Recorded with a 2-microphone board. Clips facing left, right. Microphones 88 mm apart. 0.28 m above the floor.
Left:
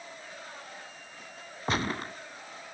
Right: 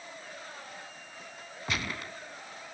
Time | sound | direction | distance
1.7 | a gunshot | 35° left (ahead or behind) | 0.9 m